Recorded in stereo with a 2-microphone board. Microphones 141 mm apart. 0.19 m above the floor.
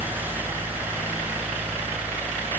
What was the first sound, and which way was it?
Only background noise.